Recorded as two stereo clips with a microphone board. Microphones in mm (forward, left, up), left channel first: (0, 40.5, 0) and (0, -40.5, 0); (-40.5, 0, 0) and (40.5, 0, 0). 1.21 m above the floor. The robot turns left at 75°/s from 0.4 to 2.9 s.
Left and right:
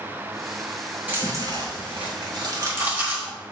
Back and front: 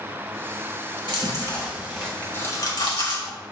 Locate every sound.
1.1 s chewing: 20° right, 3 m; by 3.3 s 155° right, 3 m